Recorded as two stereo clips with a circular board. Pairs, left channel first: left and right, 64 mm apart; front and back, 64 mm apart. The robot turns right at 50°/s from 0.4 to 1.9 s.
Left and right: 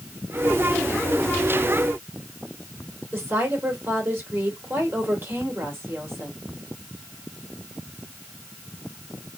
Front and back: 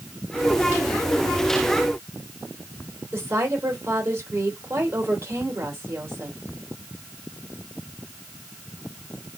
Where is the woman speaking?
135° right, 2.5 m.